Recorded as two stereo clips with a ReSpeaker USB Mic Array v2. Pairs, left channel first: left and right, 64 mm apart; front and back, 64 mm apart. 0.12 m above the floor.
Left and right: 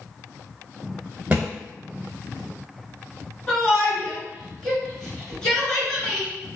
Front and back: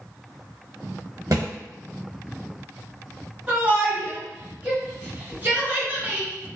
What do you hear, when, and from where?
1.3 s a thud: 155° right, 1.3 m
3.5 s a shout: 150° left, 1.3 m